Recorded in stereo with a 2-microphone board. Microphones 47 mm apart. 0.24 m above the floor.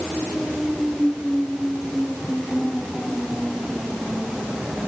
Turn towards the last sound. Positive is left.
No sound to turn to.